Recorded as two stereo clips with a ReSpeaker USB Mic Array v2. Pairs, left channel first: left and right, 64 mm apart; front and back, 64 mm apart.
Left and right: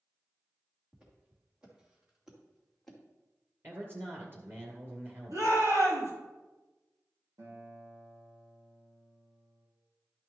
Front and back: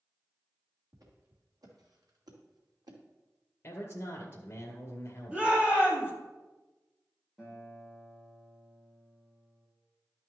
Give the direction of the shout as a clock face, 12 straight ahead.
4 o'clock.